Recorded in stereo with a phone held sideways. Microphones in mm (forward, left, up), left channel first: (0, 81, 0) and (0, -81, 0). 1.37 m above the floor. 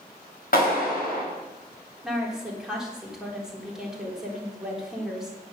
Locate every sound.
0.5 s a clap: 65° left (ahead or behind), 5 m
2.0 s a woman speaking: 5° right (ahead or behind), 3.5 m